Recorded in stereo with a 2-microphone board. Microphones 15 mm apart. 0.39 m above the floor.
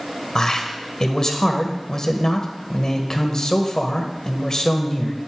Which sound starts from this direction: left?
A man speaking, at 0.3 s.